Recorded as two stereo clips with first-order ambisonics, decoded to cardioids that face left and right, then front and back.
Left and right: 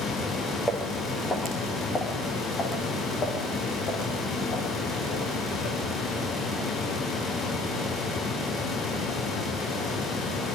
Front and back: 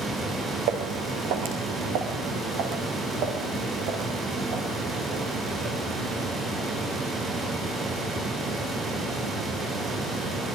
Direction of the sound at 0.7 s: 175° left.